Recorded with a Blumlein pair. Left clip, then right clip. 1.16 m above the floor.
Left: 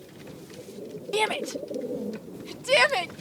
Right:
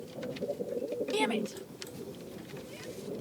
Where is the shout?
15° left; by 3.1 s 45° left.